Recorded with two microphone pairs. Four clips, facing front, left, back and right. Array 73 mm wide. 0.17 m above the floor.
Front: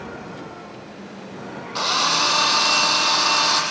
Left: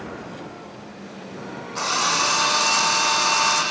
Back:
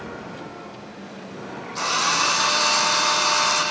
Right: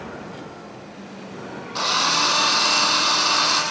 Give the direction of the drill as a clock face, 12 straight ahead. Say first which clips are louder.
Right 1 dB, front 1 dB; 1 o'clock.